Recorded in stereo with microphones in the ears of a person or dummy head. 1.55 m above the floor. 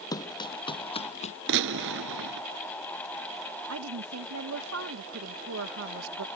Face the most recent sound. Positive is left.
turn(degrees=-85)